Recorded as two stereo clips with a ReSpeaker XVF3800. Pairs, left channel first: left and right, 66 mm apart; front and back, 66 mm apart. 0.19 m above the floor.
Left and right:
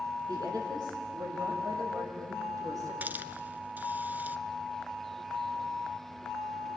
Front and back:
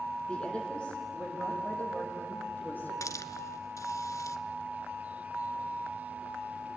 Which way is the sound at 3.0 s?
30° right.